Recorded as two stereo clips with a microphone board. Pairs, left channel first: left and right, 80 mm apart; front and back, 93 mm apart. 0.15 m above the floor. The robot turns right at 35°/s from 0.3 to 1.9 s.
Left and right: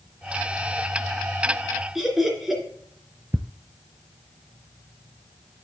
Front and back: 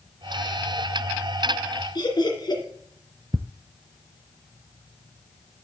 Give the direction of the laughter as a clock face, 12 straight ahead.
12 o'clock.